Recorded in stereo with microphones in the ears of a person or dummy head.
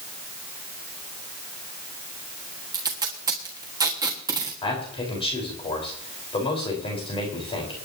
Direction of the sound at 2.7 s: 15° right (ahead or behind).